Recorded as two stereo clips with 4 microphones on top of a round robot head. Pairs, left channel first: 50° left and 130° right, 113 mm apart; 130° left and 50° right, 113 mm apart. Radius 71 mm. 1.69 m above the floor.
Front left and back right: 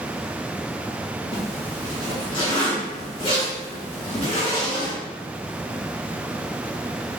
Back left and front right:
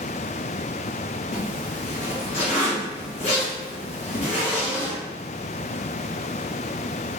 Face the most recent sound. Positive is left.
turn(degrees=95)